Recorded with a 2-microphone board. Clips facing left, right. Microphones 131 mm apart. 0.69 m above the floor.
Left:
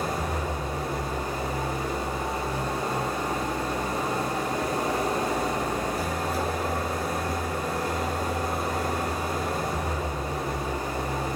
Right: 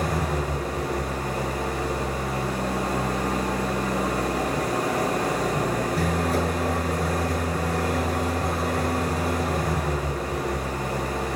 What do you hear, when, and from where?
0.0 s an engine running: 85° right, 6 m